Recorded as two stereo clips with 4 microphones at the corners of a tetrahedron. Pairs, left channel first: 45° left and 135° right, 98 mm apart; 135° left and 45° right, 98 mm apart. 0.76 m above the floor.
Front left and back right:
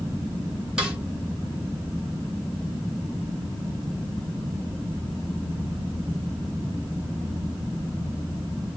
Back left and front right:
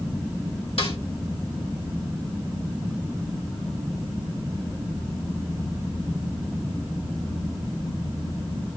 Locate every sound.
0.8 s a snare drum: 145° left, 1.9 m